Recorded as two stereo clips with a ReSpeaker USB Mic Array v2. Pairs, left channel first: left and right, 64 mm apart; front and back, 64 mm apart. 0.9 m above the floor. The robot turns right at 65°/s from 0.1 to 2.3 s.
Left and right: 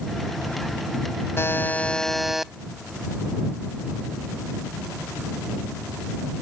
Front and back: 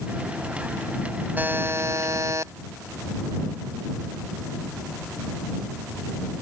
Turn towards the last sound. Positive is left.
turn(degrees=-175)